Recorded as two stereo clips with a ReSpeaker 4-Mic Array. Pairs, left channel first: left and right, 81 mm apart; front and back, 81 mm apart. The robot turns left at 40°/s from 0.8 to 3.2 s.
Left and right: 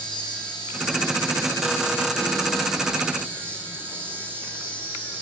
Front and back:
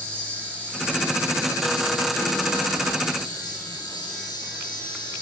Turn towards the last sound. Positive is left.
turn(degrees=-25)